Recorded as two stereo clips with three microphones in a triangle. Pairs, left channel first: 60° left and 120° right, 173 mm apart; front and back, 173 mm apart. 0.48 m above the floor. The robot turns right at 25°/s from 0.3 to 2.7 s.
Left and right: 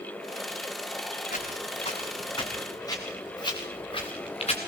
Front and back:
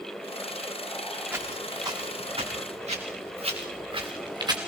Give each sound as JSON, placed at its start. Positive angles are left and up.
{"t": 1.3, "sound": "footsteps", "azimuth_deg": 100, "distance_m": 6.0}